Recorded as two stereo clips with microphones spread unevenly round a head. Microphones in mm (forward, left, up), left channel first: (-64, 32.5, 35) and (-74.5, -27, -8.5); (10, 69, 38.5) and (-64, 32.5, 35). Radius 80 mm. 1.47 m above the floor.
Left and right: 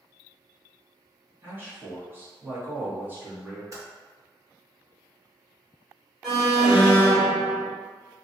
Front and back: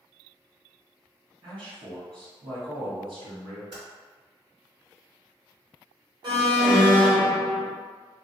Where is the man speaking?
160° right, 1.7 m.